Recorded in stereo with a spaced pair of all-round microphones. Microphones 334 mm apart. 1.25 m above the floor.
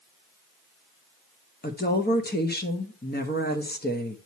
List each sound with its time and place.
1.6 s a woman speaking: 30° left (ahead or behind), 1.2 m